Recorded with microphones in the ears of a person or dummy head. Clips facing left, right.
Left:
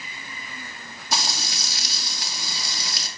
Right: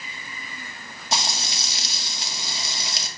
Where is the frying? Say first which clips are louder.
Right 1 dB; 25° right (ahead or behind), 1.7 m.